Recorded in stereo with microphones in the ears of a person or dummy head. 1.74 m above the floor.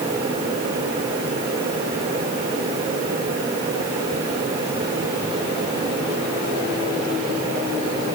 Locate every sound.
Only background noise.